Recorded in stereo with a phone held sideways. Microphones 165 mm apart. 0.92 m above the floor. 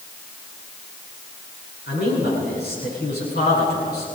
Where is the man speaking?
75° left (ahead or behind), 9 m.